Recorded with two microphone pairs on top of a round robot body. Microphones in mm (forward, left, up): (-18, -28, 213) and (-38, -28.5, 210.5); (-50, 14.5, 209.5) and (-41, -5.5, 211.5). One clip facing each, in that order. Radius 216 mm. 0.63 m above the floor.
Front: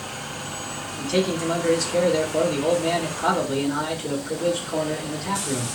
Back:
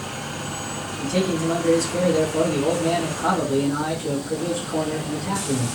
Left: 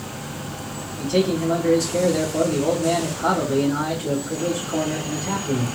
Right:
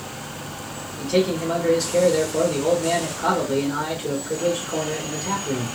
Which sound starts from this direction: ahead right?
A man speaking, at 1.0 s.